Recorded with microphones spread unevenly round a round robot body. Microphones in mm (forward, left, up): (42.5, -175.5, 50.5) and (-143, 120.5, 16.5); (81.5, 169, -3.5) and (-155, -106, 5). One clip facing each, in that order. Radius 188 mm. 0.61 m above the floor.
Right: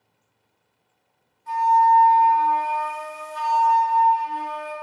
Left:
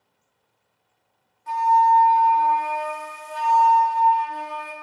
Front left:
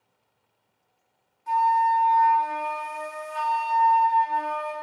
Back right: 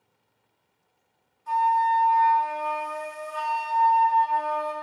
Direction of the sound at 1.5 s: 105° left.